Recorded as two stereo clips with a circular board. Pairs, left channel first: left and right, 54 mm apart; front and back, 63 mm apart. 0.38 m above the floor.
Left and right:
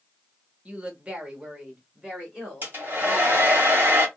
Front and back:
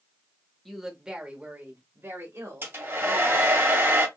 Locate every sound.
0.7 s a woman speaking: 80° right, 1.0 m; by 3.6 s 175° right, 1.9 m
2.6 s a hair dryer: 135° right, 1.8 m